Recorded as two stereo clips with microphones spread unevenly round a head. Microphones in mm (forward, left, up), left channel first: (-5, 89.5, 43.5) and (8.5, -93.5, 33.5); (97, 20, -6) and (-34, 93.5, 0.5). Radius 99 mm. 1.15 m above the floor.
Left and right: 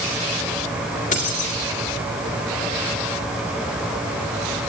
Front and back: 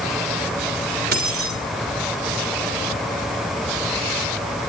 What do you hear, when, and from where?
1.1 s keys jangling: 145° left, 3.5 m